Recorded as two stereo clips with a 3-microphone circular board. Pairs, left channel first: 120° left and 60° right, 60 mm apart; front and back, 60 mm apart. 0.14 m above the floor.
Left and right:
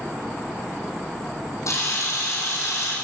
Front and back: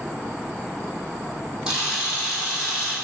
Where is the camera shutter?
105° left, 4 m.